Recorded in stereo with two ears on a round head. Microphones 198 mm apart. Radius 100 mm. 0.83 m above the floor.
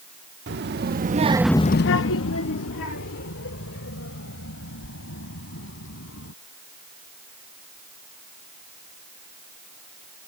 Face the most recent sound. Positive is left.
turn(degrees=65)  # may be behind; listen again after turning